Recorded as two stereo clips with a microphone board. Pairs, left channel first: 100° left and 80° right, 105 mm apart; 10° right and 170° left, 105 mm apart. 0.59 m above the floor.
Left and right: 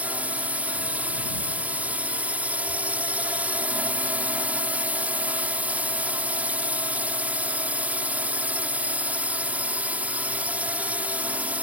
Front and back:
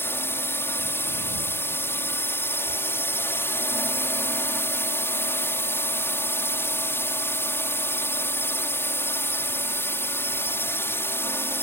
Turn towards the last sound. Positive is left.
turn(degrees=-30)